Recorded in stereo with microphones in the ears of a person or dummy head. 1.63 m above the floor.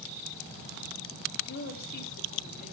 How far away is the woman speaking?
About 3.5 m.